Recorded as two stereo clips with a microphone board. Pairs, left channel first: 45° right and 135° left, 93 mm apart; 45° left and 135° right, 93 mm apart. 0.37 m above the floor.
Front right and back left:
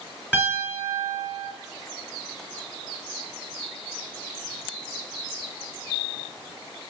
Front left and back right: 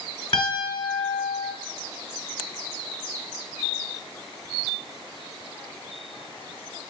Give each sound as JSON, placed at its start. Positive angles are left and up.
{"t": 0.3, "sound": "a piano", "azimuth_deg": 20, "distance_m": 2.0}